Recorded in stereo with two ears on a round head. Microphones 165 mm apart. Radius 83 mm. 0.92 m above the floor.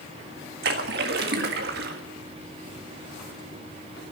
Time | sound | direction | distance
0.6 | a splash | 55° right (ahead or behind) | 1.7 m